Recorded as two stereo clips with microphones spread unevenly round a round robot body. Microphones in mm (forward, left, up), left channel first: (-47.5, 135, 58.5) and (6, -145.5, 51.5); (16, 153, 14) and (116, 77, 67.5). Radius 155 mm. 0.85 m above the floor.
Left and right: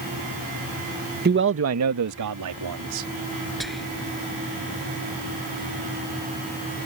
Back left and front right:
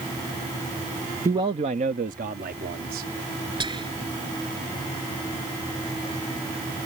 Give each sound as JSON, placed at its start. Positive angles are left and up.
{"t": 1.2, "sound": "a man speaking", "azimuth_deg": -125}
{"t": 3.6, "sound": "whispering", "azimuth_deg": 10}